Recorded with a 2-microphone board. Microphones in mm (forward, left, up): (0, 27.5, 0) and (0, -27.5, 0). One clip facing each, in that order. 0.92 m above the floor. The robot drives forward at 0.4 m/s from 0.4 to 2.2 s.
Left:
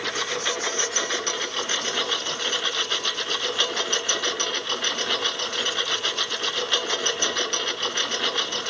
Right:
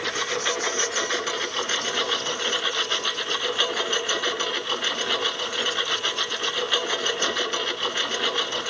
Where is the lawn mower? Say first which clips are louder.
Right 1 dB; 10° right (ahead or behind).